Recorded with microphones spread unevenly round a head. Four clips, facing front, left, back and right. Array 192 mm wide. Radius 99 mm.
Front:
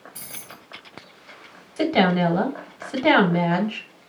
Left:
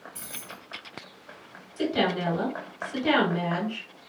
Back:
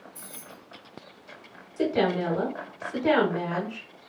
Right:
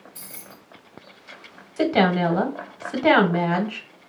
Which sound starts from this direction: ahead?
Keys jangling, at 0.1 s.